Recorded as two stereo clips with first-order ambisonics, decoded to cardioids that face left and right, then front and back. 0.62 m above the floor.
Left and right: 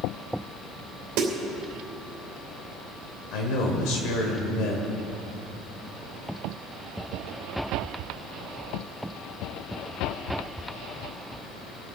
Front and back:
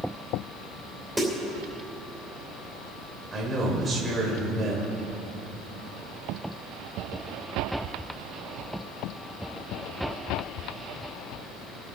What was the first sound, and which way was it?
A snare drum, 95° right.